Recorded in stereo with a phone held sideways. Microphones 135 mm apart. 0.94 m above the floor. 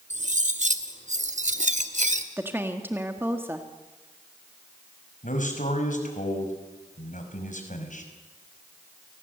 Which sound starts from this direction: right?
Cutlery clinking, at 0.1 s.